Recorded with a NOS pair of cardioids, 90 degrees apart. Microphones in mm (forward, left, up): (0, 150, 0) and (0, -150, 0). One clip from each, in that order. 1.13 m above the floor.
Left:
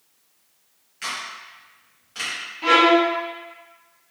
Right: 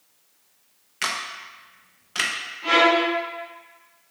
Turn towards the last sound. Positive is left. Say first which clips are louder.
# left 2 dB
turn(degrees=65)